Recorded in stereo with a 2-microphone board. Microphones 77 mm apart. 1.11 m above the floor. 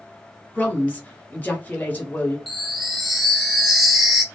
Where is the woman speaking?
20° left (ahead or behind), 1.0 m.